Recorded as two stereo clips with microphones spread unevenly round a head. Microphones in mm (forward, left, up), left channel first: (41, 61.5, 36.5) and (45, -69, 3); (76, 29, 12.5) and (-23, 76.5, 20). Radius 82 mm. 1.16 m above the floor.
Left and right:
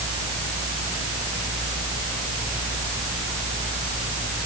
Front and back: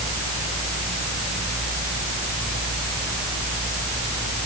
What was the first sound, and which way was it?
Only background noise.